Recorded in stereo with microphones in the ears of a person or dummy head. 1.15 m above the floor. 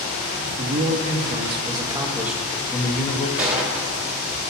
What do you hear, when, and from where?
0.6 s a man speaking: 40° right (ahead or behind), 1.9 m; by 3.3 s 30° left (ahead or behind), 1.0 m
3.4 s a gunshot: 5° right (ahead or behind), 3.5 m